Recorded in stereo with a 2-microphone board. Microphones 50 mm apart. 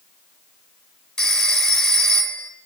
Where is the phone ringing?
10° left (ahead or behind), 1.6 m.